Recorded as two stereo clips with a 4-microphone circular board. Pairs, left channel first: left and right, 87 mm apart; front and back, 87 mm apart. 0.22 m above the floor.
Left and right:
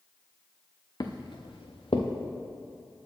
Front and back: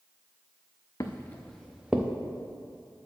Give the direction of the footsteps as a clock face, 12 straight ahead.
10 o'clock.